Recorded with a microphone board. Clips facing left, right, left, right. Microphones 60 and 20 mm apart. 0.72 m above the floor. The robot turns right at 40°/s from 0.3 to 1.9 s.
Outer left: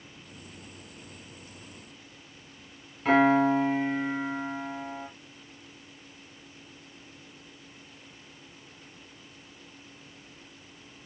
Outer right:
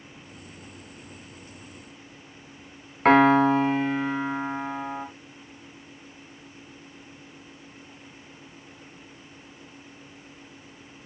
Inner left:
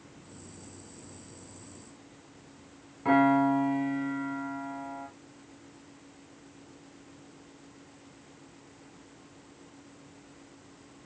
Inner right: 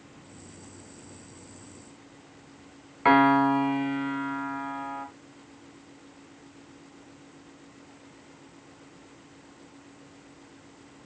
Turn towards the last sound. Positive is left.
turn(degrees=-70)  # may be behind; listen again after turning